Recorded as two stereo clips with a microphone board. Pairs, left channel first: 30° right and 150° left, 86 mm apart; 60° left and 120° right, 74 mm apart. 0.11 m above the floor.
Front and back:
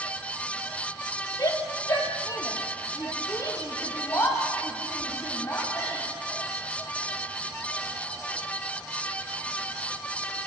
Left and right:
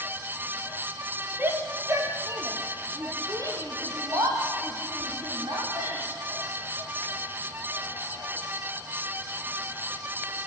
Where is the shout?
65° right, 3.5 m; by 6.0 s 90° right, 8 m.